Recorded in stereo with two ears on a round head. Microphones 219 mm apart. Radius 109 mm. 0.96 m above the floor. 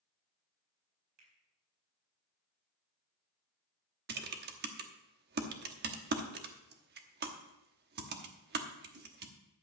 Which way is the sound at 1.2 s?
90° right.